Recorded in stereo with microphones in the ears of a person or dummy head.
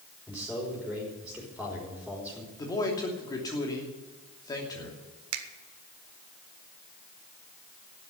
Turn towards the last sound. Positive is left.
turn(degrees=-85)